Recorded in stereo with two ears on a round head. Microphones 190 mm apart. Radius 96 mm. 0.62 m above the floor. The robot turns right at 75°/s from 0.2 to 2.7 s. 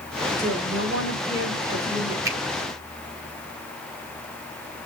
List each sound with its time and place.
0.4 s a woman speaking: 145° right, 3.5 m; by 2.1 s 15° right, 3.5 m
2.2 s a finger snap: 15° right (ahead or behind), 2.5 m; by 2.4 s 10° right (ahead or behind), 2.5 m